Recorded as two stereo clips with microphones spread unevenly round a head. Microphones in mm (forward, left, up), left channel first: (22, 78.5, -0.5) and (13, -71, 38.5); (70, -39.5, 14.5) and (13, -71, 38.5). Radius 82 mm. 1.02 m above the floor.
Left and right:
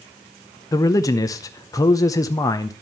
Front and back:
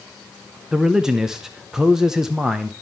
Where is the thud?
No thud in this recording.